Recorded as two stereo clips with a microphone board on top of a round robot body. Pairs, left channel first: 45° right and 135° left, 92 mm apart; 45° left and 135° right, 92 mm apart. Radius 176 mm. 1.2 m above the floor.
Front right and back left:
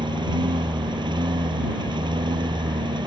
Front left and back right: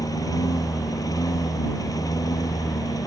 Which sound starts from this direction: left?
A lawn mower, at 0.0 s.